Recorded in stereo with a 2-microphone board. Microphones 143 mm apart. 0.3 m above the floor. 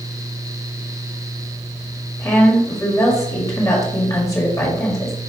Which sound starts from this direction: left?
A woman speaking, at 2.2 s.